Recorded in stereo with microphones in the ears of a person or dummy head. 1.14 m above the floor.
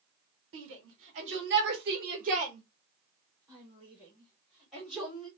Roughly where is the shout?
Right.